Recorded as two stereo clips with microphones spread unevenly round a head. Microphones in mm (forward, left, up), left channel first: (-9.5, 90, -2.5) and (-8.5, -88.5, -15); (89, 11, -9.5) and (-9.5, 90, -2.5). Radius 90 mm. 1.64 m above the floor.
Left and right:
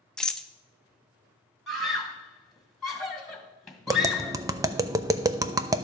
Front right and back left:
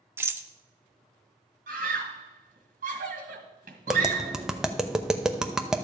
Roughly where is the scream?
Behind.